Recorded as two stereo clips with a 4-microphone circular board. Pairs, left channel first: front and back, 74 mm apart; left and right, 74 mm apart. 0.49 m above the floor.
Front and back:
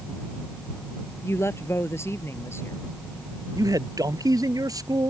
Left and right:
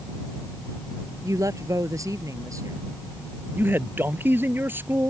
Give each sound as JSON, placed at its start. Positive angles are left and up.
{"t": 1.2, "sound": "a woman speaking", "azimuth_deg": -50}
{"t": 3.5, "sound": "a man speaking", "azimuth_deg": -150}